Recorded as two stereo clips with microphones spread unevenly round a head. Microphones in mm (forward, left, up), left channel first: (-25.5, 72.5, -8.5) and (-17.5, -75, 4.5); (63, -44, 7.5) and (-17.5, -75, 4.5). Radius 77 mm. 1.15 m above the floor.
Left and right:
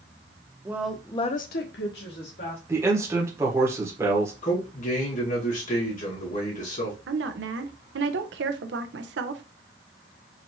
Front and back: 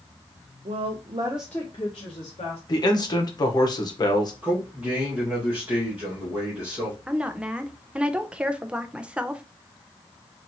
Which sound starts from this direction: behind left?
A man speaking, at 4.4 s.